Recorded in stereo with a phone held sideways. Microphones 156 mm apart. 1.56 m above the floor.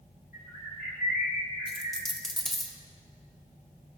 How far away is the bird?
About 2.5 m.